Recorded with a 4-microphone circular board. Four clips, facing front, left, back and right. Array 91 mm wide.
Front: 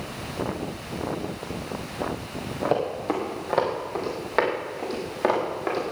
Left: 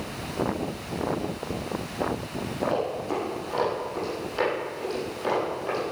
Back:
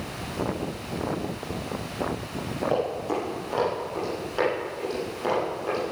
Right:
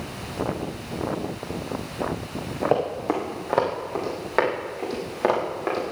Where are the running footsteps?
70° right, 5 m; by 5.8 s 50° right, 8.5 m.